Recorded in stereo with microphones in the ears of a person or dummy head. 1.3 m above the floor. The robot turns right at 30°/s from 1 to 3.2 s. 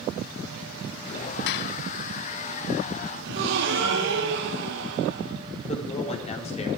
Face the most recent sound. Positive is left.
turn(degrees=35)  # may be behind; listen again after turning